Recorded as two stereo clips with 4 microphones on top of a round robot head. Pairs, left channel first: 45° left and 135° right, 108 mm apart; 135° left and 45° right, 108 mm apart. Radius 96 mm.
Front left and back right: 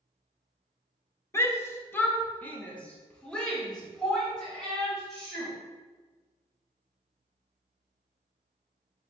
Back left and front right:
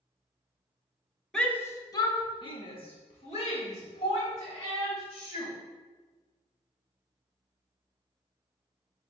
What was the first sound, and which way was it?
A shout, 55° left.